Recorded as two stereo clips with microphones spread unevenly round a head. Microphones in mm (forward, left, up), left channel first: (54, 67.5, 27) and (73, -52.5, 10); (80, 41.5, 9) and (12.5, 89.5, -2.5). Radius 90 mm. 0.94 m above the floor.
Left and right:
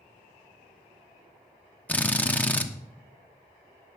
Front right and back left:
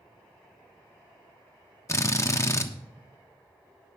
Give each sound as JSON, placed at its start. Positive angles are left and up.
{"t": 1.9, "sound": "a drill", "azimuth_deg": 20, "distance_m": 1.2}